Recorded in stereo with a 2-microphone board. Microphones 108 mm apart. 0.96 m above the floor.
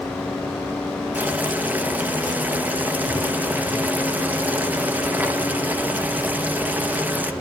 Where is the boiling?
15° right (ahead or behind), 0.7 m.